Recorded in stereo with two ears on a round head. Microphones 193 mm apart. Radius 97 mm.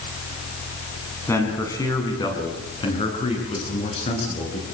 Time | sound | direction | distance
1.3 | a man speaking | 15° left (ahead or behind) | 6.5 m